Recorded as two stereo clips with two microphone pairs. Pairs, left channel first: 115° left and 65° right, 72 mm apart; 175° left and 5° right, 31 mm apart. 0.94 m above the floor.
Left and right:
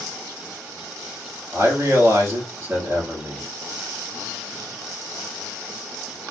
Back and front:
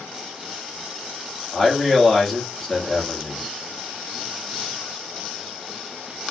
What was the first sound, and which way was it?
A man speaking, 110° right.